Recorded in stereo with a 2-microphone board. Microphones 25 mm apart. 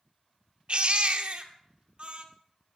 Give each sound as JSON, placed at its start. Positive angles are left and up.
{"t": 0.7, "sound": "a baby crying", "side_deg": -50, "distance_m": 1.2}